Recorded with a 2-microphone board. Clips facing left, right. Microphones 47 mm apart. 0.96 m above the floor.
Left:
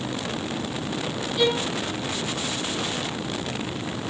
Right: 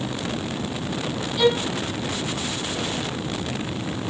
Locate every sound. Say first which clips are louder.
1.4 s a violin: right 3 dB; centre (ahead or behind), 7 m